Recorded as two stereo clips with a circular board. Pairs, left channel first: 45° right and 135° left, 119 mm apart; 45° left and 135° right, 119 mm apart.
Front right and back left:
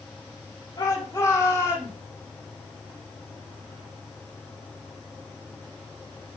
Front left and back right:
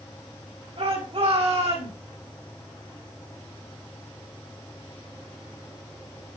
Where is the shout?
100° right, 5.5 m; by 1.9 s 110° right, 6 m.